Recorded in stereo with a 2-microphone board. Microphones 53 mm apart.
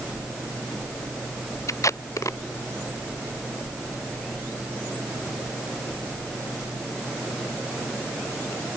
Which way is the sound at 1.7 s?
85° left.